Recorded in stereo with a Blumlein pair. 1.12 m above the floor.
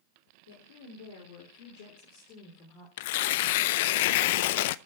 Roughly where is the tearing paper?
Ahead left.